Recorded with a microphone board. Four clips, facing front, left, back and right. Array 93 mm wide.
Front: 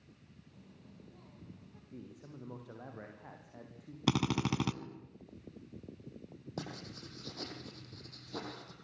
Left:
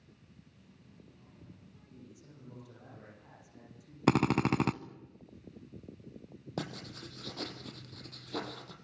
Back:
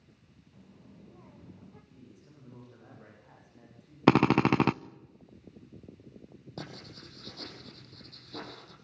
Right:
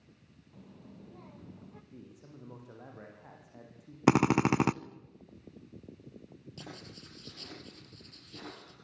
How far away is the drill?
About 0.6 m.